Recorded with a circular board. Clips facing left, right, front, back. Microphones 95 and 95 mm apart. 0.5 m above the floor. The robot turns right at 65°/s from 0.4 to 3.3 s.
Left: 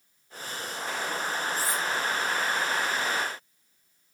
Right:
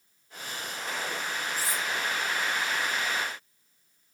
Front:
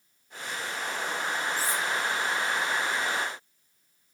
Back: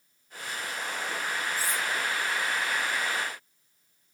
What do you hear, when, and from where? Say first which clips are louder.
1.6 s cutlery clinking: left 3 dB, front 1 dB; 165° right, 1.6 m; by 1.8 s 145° right, 1.6 m